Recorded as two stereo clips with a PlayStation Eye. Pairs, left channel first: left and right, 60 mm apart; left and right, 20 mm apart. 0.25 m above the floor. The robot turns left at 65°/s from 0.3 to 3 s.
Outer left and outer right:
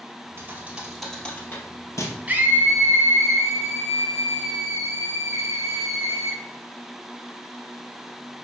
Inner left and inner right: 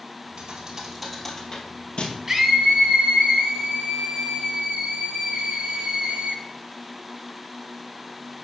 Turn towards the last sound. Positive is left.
turn(degrees=-80)